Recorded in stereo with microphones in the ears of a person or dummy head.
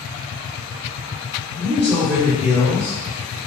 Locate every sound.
1.6 s a man speaking: 5° left (ahead or behind), 1.2 m; by 3.5 s 10° left (ahead or behind), 2.5 m